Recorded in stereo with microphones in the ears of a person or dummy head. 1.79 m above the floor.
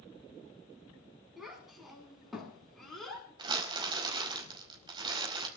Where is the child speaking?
Centre (ahead or behind), 8.5 m; by 3.3 s 5° left (ahead or behind), 9 m.